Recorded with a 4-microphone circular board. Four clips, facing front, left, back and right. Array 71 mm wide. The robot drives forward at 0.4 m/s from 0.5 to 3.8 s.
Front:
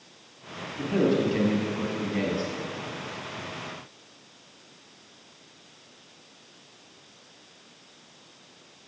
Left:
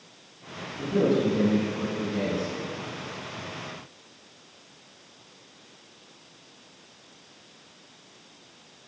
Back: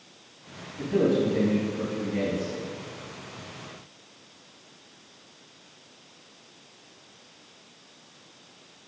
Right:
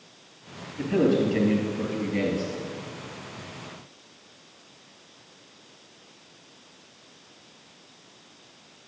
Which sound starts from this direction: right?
A man speaking, at 0.8 s.